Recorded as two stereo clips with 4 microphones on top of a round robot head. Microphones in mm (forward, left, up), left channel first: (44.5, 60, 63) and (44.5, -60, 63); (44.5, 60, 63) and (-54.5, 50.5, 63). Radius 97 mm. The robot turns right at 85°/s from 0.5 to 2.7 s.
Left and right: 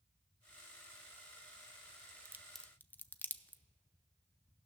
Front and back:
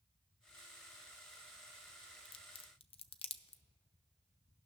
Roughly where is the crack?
Ahead right.